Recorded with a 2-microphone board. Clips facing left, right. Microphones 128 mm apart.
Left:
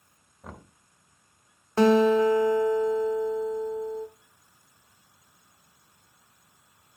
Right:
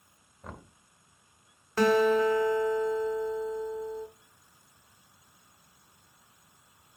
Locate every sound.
0.4 s knocking: 5° left (ahead or behind), 0.9 m
1.8 s a guitar: 25° left (ahead or behind), 0.9 m